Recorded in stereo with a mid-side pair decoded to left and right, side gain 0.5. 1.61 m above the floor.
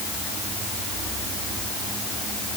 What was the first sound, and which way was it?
Only background noise.